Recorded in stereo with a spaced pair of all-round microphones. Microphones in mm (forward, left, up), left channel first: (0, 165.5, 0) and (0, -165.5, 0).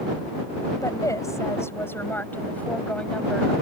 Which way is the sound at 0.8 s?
10° left (ahead or behind).